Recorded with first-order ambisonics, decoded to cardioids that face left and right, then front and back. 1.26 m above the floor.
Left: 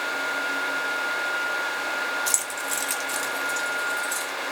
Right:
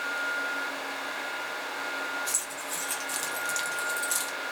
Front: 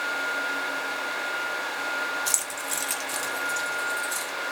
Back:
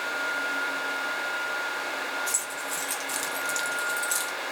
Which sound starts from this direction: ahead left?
Keys jangling, at 2.3 s.